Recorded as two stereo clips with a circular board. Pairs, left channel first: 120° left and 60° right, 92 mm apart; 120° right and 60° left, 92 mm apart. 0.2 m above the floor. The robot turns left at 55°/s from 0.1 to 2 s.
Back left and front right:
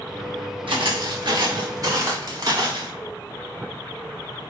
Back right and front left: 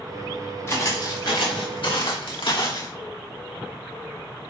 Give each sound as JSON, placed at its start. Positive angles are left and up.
{"t": 0.7, "sound": "footsteps", "azimuth_deg": -60, "distance_m": 4.0}